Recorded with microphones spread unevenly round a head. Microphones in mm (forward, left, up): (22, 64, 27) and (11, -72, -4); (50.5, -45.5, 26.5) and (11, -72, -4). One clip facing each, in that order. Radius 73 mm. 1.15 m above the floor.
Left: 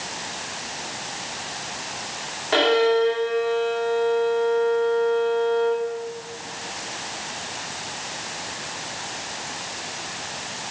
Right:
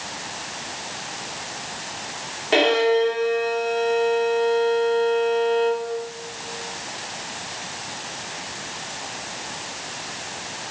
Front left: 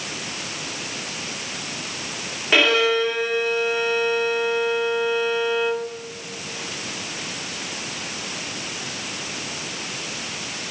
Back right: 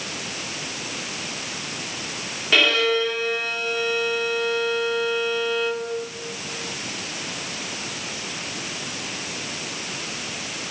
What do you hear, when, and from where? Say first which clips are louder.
2.5 s a violin: even, front left 2 dB; 25° right, 1.7 m